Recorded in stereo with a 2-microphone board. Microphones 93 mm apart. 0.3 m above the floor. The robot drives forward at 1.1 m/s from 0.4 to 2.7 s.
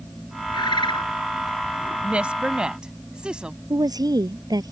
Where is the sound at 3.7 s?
45° right (ahead or behind).